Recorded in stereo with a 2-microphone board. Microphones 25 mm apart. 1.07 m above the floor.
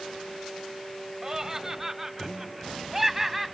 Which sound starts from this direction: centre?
Laughter, at 1.2 s.